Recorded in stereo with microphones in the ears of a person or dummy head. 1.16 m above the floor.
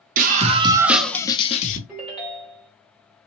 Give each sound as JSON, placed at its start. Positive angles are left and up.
{"t": 0.2, "sound": "a scream", "side_deg": -50, "distance_m": 0.9}
{"t": 1.9, "sound": "a ringtone", "side_deg": -5, "distance_m": 1.3}